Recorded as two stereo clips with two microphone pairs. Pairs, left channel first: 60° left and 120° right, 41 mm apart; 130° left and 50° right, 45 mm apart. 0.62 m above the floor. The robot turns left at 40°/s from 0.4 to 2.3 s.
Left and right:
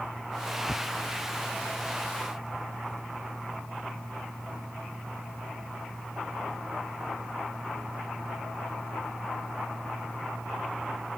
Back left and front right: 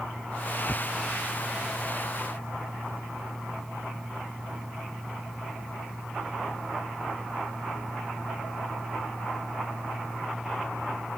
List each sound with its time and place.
0.7 s tearing paper: 45° left; by 3.0 s 20° right